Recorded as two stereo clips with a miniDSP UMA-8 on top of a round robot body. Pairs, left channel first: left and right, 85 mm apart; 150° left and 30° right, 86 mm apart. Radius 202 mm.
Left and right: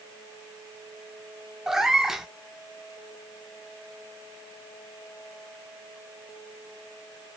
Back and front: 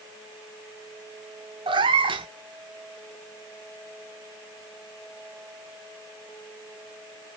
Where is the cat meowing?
5° right, 0.7 m.